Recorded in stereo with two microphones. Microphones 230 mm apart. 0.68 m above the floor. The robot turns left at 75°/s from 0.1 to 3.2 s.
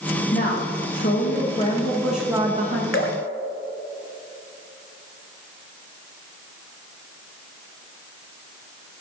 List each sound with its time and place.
0.3 s a woman speaking: 135° left, 1.5 m; by 2.8 s 55° right, 1.5 m
2.9 s dripping: 55° left (ahead or behind), 1.2 m; by 3.2 s 70° left (ahead or behind), 1.2 m